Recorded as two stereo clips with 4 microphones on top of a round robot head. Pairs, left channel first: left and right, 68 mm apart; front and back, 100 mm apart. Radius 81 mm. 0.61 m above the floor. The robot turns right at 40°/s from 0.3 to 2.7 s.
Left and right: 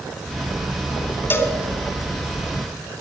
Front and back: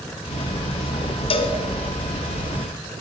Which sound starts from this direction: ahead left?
A cowbell, at 1.3 s.